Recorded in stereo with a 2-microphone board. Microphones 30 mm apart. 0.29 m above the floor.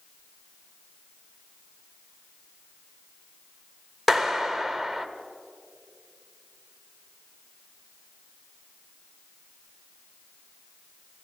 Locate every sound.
4.1 s a clap: 5° right (ahead or behind), 0.8 m